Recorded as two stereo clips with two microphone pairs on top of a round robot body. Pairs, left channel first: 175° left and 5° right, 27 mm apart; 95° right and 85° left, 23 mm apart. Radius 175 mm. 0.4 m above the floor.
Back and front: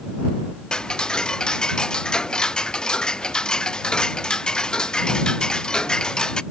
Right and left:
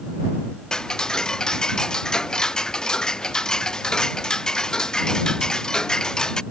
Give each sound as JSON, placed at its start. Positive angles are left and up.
{"t": 0.7, "sound": "ticking", "azimuth_deg": -145}